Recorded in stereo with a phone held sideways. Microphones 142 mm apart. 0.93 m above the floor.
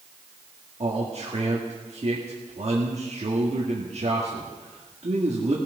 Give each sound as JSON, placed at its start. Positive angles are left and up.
{"t": 0.8, "sound": "a man speaking", "side_deg": -50, "distance_m": 1.7}